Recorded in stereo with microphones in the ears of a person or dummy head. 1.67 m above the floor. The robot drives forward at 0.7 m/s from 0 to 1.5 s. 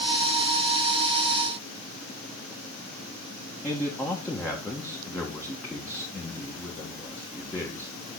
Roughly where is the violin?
I don't hear a violin.